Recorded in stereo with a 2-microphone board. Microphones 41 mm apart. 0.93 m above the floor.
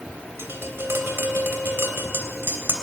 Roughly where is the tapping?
Right.